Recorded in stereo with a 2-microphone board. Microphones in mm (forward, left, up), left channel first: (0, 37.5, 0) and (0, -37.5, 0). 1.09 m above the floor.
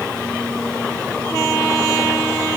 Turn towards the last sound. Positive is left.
No sound to turn to.